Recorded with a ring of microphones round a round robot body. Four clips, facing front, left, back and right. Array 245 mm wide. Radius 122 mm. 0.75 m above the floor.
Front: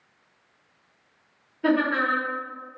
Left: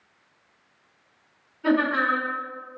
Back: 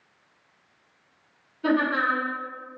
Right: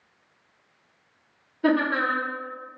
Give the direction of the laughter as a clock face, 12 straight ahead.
2 o'clock.